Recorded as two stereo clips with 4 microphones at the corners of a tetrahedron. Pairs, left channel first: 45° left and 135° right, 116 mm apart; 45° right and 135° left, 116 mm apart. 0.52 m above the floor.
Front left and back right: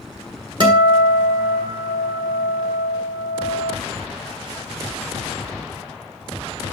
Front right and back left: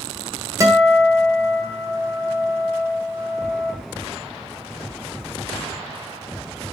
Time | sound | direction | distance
0.6 | a guitar | 175° right | 1.6 m